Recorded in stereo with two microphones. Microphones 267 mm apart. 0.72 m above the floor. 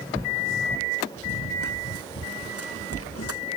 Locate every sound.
1.2 s running footsteps: 60° left (ahead or behind)